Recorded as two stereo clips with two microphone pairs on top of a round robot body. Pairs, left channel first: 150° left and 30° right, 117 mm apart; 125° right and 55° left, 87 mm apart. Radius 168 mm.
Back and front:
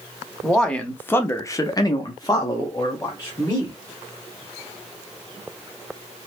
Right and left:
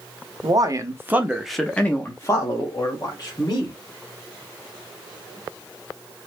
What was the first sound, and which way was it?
A man speaking, 65° left.